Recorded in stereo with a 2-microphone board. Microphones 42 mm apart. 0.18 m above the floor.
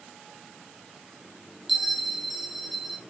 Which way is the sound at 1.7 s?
Centre (ahead or behind).